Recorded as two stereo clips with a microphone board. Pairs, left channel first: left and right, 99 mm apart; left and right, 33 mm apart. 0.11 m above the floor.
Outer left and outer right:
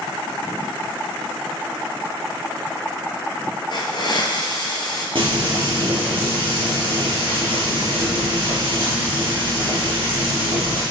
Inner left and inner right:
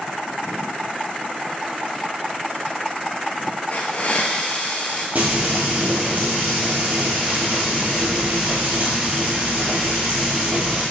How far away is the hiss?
About 0.7 m.